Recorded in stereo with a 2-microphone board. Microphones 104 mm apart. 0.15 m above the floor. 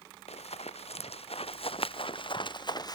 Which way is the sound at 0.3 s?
85° left.